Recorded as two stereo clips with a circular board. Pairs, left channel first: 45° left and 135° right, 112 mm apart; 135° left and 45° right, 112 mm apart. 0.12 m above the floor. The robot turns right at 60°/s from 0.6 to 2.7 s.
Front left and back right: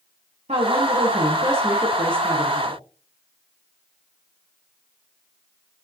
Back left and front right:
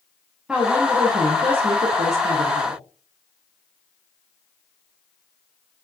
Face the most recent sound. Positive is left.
turn(degrees=0)